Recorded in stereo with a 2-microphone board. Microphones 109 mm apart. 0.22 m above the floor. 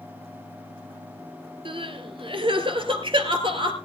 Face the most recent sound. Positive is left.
turn(degrees=-55)  # may be behind; listen again after turning